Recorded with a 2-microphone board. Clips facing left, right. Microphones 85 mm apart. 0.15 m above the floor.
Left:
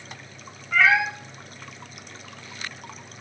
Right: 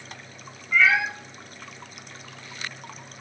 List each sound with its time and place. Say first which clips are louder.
0.7 s a cat meowing: left 1 dB; 65° left (ahead or behind), 1.0 m